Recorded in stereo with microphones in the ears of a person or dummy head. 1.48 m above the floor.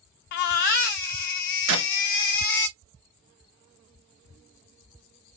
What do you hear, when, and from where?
0.3 s a baby crying: 45° left (ahead or behind), 0.6 m
1.7 s a clap: 85° right, 2.0 m